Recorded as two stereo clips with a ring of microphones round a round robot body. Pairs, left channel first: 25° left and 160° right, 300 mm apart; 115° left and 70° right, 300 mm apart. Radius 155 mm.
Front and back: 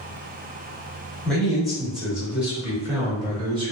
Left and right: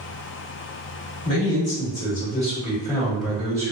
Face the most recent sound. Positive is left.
turn(degrees=-115)